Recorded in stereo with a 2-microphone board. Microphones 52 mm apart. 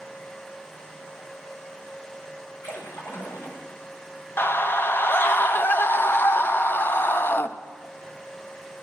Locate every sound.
2.6 s a splash: 55° left (ahead or behind), 1.9 m
4.4 s a scream: 45° left (ahead or behind), 0.5 m